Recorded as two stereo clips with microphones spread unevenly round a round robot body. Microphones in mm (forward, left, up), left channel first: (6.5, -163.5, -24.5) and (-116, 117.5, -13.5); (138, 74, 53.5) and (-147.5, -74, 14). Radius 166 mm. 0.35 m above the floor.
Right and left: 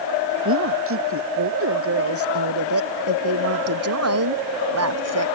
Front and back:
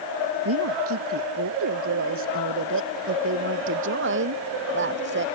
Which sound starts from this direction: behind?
A woman speaking, at 0.5 s.